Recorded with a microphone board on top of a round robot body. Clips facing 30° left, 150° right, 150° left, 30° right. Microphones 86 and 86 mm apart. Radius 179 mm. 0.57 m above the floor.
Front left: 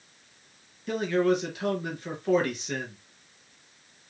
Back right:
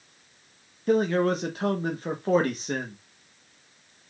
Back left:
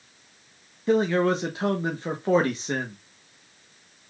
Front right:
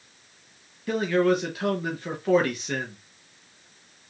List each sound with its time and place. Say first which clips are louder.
0.9 s a man speaking: back right 2 dB, back left 1 dB; 165° right, 1.1 m